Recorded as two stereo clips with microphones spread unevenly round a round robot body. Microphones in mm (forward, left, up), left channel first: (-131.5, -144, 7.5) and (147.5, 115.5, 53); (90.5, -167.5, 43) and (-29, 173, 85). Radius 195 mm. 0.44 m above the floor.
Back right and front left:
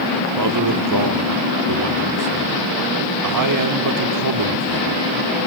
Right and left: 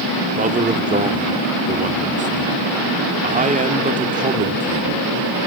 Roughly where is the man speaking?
Ahead left.